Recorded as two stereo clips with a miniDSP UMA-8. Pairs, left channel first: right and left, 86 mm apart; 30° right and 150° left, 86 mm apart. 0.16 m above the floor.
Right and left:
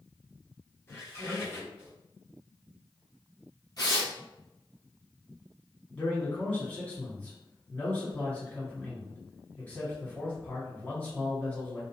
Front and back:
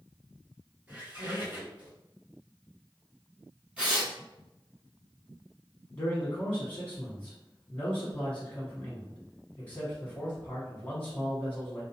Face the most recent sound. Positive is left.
turn(degrees=-50)